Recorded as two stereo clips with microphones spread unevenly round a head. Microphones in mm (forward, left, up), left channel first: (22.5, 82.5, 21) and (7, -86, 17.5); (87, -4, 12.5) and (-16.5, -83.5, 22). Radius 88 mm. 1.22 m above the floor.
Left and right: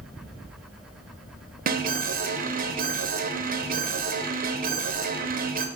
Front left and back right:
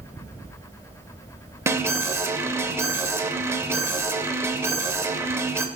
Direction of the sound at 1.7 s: 75° right.